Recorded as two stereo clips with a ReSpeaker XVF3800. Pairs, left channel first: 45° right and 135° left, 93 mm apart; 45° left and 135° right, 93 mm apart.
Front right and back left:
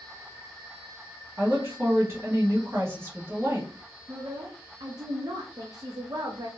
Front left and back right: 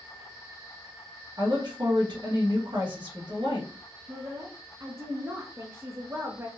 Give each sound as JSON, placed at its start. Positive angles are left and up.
{"t": 1.4, "sound": "a woman speaking", "azimuth_deg": -165, "distance_m": 1.4}
{"t": 4.1, "sound": "a woman speaking", "azimuth_deg": 170, "distance_m": 0.6}